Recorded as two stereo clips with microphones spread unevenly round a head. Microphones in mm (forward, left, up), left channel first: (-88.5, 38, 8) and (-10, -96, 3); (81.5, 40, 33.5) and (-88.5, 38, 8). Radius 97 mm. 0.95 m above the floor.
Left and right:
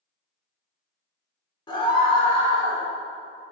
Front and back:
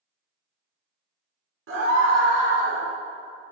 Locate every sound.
1.7 s a scream: straight behind, 2 m; by 2.8 s 170° left, 3 m